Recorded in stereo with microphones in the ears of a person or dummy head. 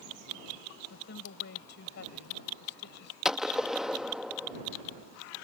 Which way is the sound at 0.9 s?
65° left (ahead or behind).